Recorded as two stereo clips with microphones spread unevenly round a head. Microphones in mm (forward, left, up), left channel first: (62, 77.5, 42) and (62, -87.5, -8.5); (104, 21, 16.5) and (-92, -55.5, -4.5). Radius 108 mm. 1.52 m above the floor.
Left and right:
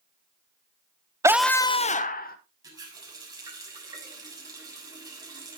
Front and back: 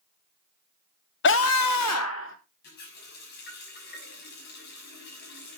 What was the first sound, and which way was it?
A scream, 15° right.